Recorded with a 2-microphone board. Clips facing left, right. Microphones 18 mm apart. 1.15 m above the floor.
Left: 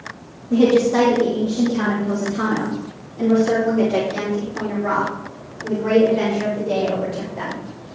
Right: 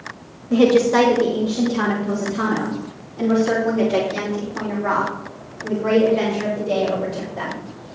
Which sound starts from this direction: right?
A woman speaking, at 0.5 s.